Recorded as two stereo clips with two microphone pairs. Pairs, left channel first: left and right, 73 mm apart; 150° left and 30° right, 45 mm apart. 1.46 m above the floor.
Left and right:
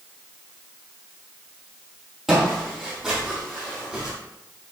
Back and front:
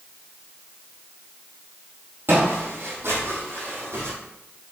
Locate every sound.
2.3 s footsteps: 5° right, 3.5 m; by 4.1 s 10° right, 4.5 m